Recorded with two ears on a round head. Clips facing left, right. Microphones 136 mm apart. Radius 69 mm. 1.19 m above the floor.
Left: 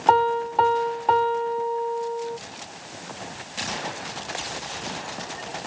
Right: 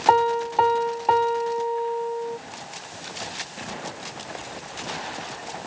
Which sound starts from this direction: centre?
A piano, at 0.1 s.